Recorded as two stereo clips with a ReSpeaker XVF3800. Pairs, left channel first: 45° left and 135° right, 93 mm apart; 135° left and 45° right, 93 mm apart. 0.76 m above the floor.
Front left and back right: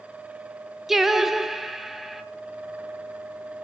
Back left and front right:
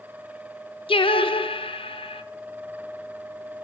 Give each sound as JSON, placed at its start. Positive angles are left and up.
{"t": 0.9, "sound": "singing", "azimuth_deg": 140, "distance_m": 0.5}